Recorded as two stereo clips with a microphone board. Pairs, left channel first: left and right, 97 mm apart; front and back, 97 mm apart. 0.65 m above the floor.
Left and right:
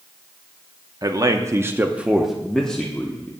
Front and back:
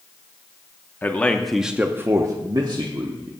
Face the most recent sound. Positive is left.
turn(degrees=160)